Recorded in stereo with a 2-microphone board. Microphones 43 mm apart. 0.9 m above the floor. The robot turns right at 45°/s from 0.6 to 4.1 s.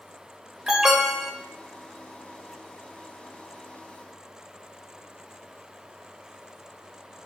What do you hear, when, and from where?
0.7 s an alarm: 15° right (ahead or behind), 1.0 m; by 1.3 s centre (ahead or behind), 1.0 m